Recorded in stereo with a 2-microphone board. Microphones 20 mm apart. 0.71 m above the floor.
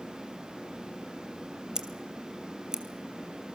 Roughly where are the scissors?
Right.